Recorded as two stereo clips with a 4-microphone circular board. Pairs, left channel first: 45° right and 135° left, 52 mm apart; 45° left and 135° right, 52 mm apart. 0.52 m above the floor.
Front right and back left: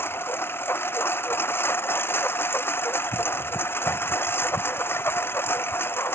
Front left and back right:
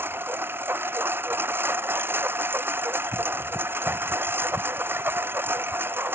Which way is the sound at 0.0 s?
90° right.